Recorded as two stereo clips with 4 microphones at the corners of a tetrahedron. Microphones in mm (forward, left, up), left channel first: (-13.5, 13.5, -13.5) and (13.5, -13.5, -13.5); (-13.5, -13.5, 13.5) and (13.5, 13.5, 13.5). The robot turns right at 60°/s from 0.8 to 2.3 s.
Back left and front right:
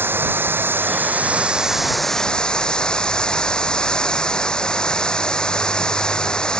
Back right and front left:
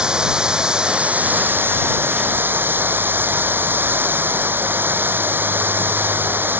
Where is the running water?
25° right; by 6.6 s 65° left.